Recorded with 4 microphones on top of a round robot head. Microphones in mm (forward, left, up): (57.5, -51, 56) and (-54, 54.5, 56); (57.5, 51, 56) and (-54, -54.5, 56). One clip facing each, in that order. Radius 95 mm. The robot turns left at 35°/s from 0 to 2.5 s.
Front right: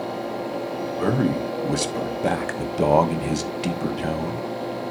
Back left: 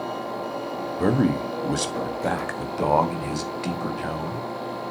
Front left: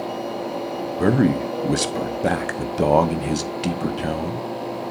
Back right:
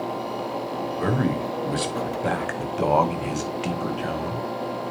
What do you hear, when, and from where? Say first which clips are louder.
1.0 s a man speaking: back left 1 dB, front left 7 dB; 65° left, 0.8 m; by 4.5 s 10° left, 0.8 m